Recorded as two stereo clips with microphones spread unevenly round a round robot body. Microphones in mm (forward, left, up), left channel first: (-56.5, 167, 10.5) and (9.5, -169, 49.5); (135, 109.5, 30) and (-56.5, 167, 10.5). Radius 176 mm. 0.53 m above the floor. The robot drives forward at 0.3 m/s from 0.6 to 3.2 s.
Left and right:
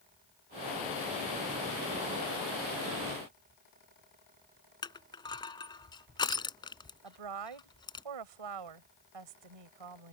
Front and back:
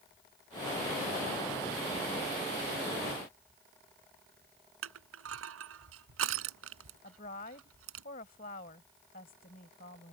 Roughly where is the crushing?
Behind.